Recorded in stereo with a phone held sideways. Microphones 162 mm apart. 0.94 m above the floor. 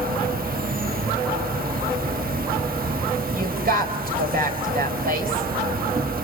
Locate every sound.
0.0 s an insect: 65° right (ahead or behind), 1.2 m
3.4 s a woman speaking: 70° right (ahead or behind), 4 m